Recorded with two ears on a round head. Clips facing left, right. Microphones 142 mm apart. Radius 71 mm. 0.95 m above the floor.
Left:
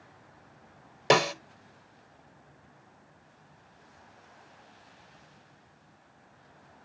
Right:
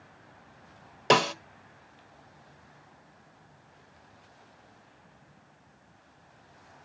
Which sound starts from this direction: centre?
A snare drum, at 1.1 s.